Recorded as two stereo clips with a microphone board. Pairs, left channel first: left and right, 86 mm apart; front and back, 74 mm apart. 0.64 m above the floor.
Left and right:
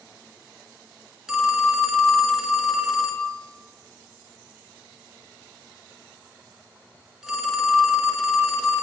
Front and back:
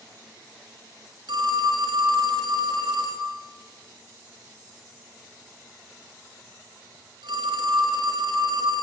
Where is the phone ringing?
175° right, 4.5 m.